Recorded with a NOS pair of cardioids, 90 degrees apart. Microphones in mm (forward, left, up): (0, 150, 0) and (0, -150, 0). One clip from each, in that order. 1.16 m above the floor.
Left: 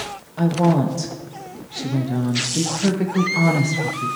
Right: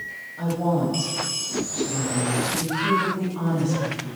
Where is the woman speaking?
70° left, 1.0 m.